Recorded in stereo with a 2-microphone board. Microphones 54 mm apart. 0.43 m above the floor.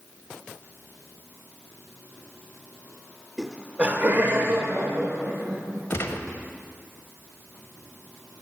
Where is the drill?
No drill in this recording.